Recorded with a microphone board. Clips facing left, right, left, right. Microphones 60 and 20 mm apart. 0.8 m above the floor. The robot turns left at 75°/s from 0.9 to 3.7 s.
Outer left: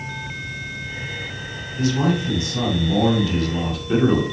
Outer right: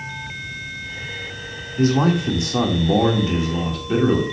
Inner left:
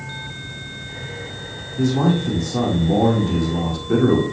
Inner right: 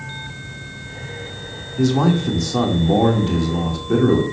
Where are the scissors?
No scissors in this recording.